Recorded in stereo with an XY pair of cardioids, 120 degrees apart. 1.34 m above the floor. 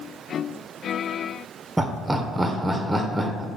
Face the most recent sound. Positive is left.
turn(degrees=-15)